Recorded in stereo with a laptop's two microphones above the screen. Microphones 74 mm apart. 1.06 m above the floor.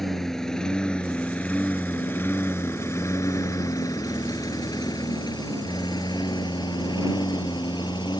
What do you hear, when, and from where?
0.0 s a lawn mower: 5° left (ahead or behind); by 8.2 s 85° left